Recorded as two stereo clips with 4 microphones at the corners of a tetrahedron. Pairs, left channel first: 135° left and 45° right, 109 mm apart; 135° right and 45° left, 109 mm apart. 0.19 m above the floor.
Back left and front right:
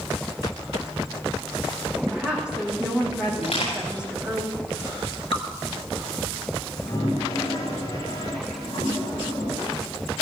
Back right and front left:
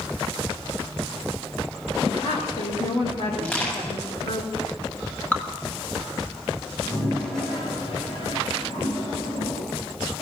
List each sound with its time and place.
2.1 s a woman speaking: 125° right, 8 m
3.4 s crushing: 155° left, 9.5 m
5.3 s dripping: 150° left, 2.5 m
6.7 s a toilet flushing: 170° right, 9 m